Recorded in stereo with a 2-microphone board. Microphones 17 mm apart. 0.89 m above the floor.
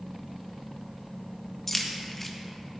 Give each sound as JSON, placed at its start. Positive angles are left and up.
{"t": 1.7, "sound": "keys jangling", "side_deg": 15, "distance_m": 0.8}